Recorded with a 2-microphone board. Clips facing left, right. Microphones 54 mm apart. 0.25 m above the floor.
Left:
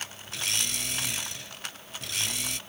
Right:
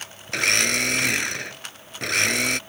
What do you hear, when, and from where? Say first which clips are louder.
0.3 s a blender: right 12 dB; 75° right (ahead or behind)